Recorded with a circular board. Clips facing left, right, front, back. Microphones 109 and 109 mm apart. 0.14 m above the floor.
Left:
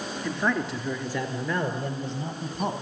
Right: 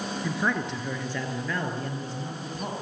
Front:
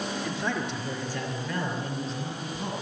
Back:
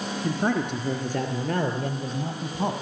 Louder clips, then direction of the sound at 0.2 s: Left 2 dB, back 9 dB; 170° right.